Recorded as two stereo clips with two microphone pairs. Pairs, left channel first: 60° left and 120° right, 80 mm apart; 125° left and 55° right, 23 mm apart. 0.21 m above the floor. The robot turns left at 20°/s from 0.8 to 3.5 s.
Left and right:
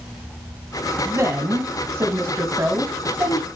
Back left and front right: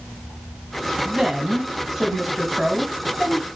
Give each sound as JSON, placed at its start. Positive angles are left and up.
{"t": 1.1, "sound": "a woman speaking", "azimuth_deg": -105, "distance_m": 1.3}